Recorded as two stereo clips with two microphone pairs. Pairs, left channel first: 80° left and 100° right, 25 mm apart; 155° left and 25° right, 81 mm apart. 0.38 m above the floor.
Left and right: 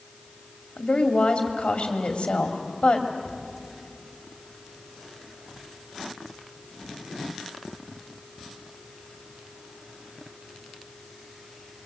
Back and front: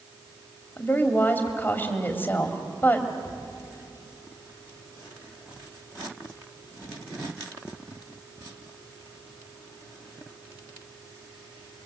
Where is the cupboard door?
160° right, 7.5 m.